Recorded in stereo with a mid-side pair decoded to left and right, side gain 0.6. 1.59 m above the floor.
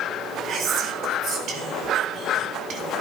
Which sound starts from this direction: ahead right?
Whispering, at 0.5 s.